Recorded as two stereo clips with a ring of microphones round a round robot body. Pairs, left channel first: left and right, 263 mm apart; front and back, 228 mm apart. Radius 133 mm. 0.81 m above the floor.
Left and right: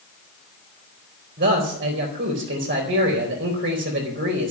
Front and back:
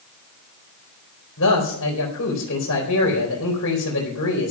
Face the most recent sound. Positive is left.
turn(degrees=-35)